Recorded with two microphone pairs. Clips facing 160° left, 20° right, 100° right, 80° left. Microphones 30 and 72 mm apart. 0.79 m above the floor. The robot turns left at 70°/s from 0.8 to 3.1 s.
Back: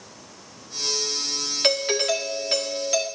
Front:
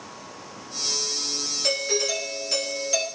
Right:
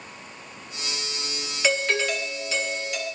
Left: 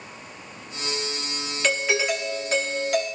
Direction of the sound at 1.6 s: 175° left.